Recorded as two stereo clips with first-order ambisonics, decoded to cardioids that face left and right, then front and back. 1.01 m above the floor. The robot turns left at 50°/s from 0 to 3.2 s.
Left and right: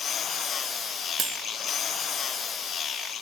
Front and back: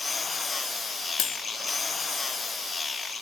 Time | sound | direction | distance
1.2 | cutlery clinking | 30° right | 0.7 m